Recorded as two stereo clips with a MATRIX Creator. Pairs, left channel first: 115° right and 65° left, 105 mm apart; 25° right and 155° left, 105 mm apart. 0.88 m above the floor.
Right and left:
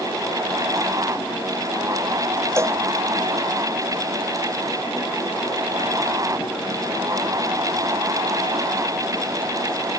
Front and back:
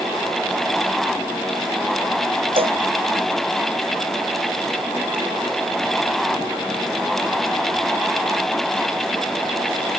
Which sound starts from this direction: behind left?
A cowbell, at 2.6 s.